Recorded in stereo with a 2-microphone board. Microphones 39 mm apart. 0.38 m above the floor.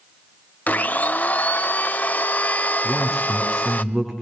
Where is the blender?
45° left (ahead or behind), 0.7 m.